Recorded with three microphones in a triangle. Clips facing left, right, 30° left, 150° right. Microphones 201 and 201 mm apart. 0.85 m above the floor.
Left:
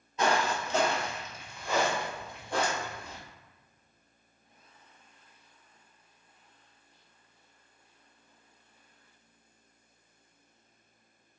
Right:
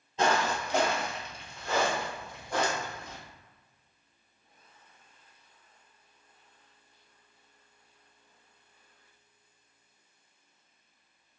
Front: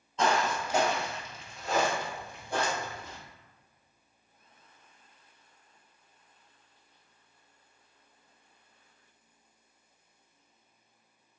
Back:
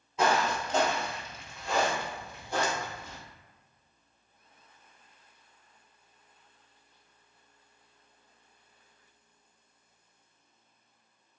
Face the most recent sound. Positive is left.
turn(degrees=40)